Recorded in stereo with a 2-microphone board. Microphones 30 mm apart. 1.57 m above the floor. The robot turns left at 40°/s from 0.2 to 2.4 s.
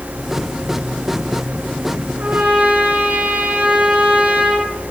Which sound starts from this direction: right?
A trumpet, at 2.2 s.